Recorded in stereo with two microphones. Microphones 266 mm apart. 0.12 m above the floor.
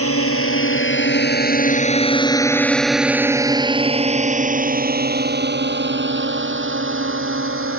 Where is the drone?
60° left (ahead or behind); by 7.8 s 50° right (ahead or behind).